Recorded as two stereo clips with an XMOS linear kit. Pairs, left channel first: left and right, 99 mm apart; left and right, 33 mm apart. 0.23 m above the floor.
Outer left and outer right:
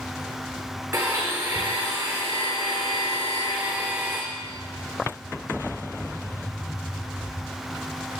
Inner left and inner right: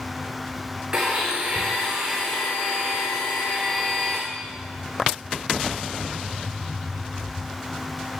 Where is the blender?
25° right (ahead or behind), 6 m.